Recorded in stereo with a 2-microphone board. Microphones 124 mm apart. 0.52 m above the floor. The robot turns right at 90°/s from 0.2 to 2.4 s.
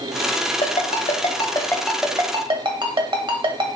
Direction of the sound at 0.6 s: 60° left (ahead or behind).